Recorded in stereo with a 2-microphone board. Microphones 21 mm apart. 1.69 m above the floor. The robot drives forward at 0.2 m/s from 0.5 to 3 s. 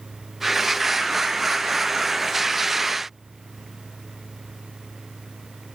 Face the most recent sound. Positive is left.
No sound to turn to.